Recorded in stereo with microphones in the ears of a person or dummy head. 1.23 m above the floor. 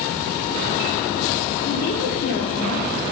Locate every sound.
1.6 s a woman speaking: 55° left (ahead or behind), 1.0 m